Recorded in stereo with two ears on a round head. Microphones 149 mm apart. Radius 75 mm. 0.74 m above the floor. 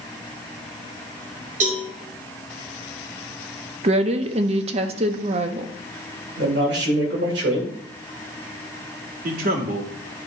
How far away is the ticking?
No ticking in this recording.